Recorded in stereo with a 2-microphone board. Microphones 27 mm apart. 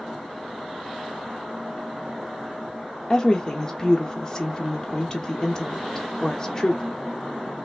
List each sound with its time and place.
3.1 s a woman speaking: 20° left (ahead or behind), 0.6 m